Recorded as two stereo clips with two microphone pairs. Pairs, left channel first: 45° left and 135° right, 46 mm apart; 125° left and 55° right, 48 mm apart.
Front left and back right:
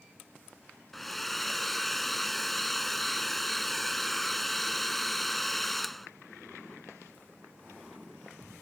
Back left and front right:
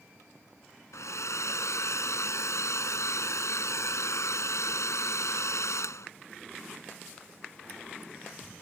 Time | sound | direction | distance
0.9 | a hair dryer | 130° left | ?